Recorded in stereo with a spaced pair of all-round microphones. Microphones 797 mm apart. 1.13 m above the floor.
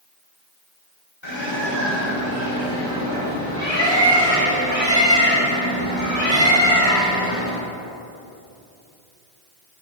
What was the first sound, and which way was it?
A bird, 35° left (ahead or behind).